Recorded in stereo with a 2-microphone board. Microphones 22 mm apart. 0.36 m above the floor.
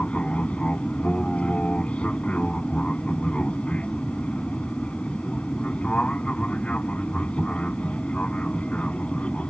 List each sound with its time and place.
0.0 s an aircraft: 65° left (ahead or behind)